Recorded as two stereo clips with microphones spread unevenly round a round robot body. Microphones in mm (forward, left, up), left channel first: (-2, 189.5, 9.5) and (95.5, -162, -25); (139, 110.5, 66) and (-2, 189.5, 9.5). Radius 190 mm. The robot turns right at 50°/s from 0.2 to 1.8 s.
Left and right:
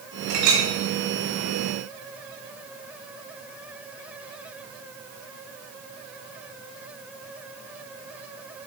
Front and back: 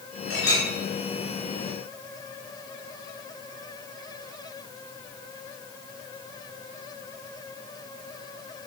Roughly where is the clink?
Behind right.